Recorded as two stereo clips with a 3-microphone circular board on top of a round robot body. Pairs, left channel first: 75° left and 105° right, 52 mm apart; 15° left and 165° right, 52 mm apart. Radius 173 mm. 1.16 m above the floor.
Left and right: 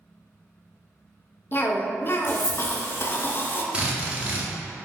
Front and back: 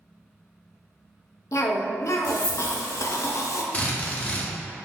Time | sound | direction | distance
1.5 | a cough | 25° left | 0.6 m
3.7 | a drill | 45° right | 0.7 m